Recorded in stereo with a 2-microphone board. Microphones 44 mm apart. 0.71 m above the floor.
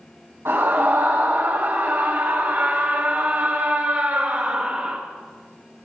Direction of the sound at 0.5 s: 80° right.